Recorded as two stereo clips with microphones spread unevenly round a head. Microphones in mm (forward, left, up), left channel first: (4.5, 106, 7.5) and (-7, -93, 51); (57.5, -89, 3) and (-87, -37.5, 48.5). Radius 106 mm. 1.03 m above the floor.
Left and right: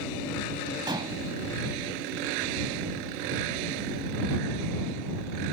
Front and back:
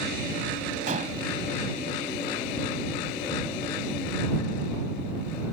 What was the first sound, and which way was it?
Dishes clattering, 165° right.